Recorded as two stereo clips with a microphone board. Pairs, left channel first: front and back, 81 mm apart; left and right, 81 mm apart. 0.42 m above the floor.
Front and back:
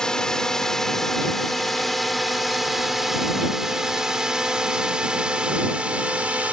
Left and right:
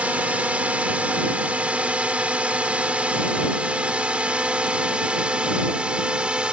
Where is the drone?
60° right; by 6.5 s 140° right.